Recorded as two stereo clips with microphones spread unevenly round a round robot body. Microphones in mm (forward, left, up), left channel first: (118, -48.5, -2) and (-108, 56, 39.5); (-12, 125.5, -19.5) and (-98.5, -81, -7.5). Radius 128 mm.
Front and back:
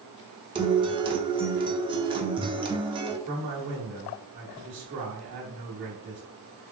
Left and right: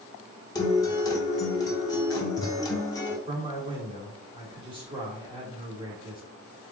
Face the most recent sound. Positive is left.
turn(degrees=180)